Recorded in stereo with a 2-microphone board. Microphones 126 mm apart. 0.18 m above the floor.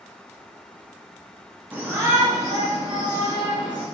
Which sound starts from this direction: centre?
A shout, at 1.7 s.